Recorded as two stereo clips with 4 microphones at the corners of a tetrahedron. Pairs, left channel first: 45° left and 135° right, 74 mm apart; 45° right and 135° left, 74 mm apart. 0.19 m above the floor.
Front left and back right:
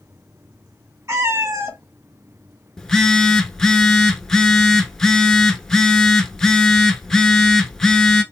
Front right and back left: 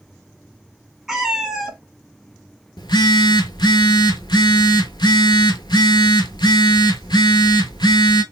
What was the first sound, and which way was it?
A cat meowing, 145° right.